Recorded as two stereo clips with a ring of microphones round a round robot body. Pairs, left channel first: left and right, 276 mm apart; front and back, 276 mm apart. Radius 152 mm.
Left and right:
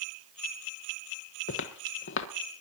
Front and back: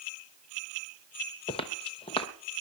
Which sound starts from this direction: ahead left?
Footsteps, at 1.5 s.